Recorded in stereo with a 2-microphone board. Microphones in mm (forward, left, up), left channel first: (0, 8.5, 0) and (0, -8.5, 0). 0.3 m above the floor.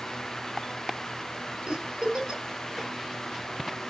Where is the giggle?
60° right (ahead or behind), 1.9 m.